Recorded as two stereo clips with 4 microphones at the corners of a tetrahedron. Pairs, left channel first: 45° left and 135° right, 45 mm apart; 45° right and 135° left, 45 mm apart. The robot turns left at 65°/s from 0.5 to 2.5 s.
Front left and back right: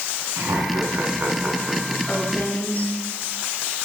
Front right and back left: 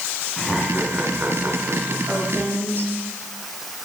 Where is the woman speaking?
125° left, 8 m; by 2.9 s 100° left, 8 m.